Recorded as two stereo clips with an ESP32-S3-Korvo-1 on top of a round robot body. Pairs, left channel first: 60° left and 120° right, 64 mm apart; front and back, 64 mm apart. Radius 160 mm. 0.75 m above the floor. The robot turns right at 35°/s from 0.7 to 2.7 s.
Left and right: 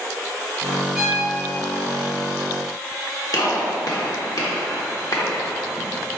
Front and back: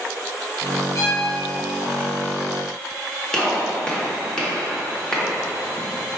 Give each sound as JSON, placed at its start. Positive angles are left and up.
{"t": 0.9, "sound": "a violin", "azimuth_deg": -45, "distance_m": 1.1}
{"t": 3.3, "sound": "a gunshot", "azimuth_deg": 80, "distance_m": 1.1}